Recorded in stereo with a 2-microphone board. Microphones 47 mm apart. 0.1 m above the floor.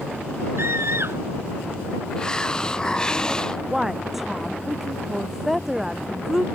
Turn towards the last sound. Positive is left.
turn(degrees=-5)  # may be behind; listen again after turning